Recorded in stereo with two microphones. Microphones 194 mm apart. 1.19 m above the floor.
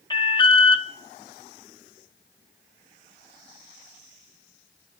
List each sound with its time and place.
0.1 s an alarm: 25° left (ahead or behind), 0.7 m